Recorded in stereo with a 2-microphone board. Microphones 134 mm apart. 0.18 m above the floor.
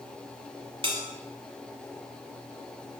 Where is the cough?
I don't hear a cough.